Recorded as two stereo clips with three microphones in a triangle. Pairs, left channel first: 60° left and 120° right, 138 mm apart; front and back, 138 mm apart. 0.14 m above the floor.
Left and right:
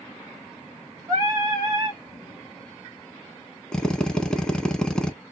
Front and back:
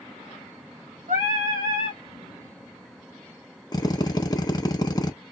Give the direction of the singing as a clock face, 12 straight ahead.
6 o'clock.